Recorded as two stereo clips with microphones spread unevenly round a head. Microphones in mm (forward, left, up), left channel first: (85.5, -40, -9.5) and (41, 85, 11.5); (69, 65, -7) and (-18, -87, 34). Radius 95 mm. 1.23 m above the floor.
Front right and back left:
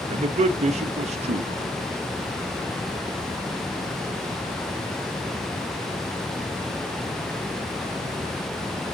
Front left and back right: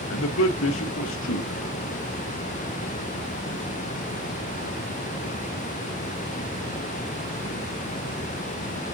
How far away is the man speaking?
About 0.9 m.